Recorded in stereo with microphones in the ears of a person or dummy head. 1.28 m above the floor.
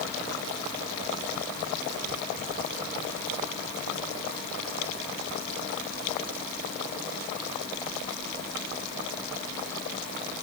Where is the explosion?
I don't hear an explosion.